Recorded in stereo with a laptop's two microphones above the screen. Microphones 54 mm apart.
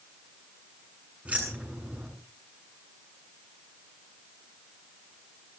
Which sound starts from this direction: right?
Keys jangling, at 1.2 s.